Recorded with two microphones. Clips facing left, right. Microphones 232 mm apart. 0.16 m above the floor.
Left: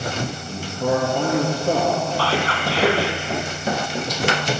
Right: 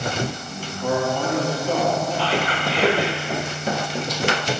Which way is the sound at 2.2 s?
20° right (ahead or behind).